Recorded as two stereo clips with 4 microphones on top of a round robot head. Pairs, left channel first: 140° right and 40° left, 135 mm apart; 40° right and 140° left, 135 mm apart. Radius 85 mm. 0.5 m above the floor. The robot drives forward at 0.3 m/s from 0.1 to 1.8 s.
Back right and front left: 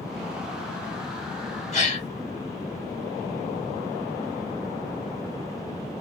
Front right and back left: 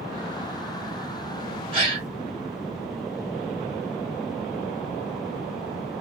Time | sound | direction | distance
1.7 | a gasp | 175° right | 1.9 m